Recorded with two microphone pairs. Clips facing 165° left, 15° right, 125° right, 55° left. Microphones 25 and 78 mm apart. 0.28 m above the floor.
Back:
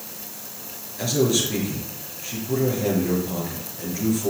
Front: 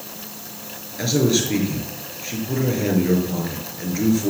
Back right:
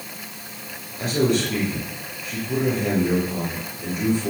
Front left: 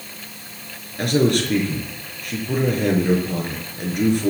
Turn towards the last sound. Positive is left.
turn(degrees=45)